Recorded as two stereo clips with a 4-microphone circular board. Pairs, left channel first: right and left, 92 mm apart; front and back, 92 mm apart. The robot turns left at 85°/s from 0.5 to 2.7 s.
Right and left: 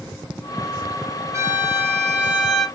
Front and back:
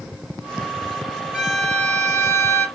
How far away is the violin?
About 1.2 m.